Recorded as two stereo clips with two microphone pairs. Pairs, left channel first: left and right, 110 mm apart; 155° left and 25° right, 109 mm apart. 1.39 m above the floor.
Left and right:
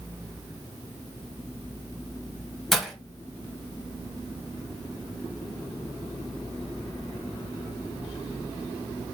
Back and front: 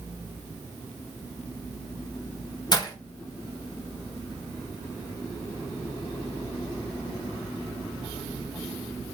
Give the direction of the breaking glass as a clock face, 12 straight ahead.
6 o'clock.